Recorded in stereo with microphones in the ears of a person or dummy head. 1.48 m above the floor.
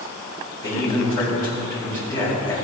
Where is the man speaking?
20° left (ahead or behind), 4 m.